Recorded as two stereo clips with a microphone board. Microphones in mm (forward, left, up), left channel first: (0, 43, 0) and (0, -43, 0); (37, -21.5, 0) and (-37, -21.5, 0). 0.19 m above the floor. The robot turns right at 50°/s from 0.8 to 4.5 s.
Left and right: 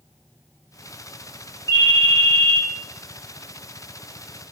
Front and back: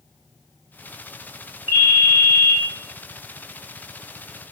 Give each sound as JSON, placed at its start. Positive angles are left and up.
{"t": 1.7, "sound": "a ringtone", "azimuth_deg": 130, "distance_m": 1.8}